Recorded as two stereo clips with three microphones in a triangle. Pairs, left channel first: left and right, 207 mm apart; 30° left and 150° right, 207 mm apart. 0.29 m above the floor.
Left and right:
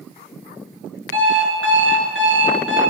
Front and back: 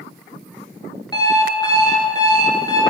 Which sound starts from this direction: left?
An alarm clock, at 1.1 s.